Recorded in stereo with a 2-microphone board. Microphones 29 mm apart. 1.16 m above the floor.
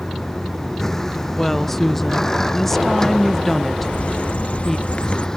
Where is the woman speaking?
10° left (ahead or behind).